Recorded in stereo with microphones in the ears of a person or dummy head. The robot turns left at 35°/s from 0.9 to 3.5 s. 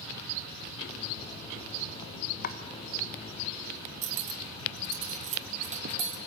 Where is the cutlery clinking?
35° right (ahead or behind), 1.0 m.